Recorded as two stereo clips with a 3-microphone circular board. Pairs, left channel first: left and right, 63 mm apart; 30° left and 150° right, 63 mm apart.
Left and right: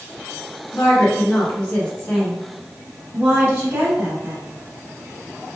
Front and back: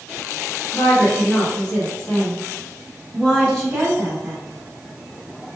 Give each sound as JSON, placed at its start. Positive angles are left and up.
{"t": 0.7, "sound": "a woman speaking", "azimuth_deg": 75, "distance_m": 1.6}